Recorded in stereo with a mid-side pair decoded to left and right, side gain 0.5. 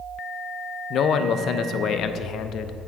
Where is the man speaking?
60° left, 0.5 m.